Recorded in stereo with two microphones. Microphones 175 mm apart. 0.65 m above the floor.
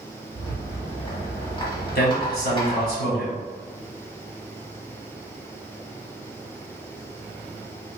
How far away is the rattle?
About 1.4 m.